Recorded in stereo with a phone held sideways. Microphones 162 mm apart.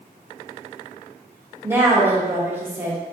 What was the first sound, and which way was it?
A woman speaking, 15° right (ahead or behind).